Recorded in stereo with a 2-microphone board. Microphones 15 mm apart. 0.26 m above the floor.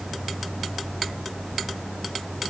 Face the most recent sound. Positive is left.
No sound to turn to.